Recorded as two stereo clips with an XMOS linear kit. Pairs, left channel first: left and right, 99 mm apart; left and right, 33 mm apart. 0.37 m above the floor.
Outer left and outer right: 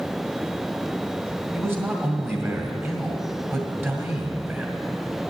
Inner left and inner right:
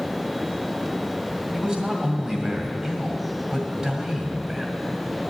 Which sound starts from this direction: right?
A man speaking, at 1.5 s.